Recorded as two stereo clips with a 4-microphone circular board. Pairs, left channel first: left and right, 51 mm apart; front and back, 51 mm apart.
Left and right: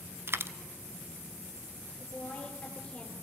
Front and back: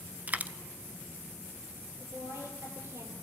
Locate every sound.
0.3 s a dropped coin: 125° right, 0.8 m
2.0 s a woman speaking: 155° left, 6 m